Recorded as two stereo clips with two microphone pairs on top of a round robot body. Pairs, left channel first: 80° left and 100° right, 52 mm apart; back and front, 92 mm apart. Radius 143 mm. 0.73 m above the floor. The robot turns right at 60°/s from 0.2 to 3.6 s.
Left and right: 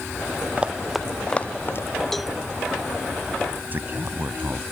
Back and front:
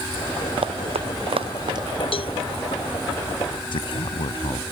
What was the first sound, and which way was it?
Running footsteps, 30° right.